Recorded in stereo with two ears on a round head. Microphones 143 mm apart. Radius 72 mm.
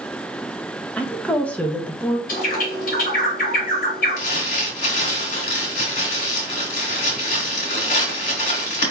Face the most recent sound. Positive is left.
turn(degrees=45)  # may be behind; listen again after turning